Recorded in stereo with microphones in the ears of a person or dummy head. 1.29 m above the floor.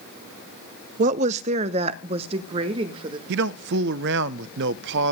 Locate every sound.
1.0 s a woman speaking: 35° right (ahead or behind), 0.5 m; by 3.2 s 25° right (ahead or behind), 1.7 m
3.3 s a man speaking: 60° right (ahead or behind), 0.6 m